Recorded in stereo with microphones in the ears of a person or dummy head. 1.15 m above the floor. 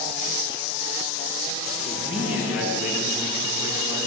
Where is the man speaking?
Centre (ahead or behind), 7.5 m; by 4.1 s 20° right (ahead or behind), 7.5 m.